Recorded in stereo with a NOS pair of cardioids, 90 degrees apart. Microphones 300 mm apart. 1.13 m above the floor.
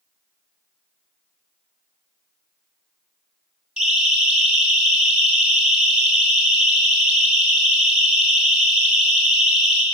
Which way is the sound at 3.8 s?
5° right.